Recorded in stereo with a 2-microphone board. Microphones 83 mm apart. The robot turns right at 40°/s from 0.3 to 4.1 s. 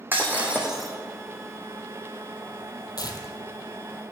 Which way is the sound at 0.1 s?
20° right (ahead or behind).